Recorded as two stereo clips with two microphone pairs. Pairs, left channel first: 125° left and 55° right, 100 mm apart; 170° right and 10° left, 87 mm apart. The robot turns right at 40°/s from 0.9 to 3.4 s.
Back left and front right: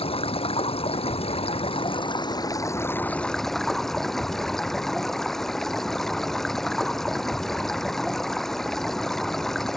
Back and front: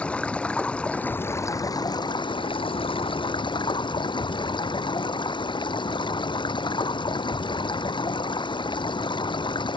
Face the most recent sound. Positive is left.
turn(degrees=-150)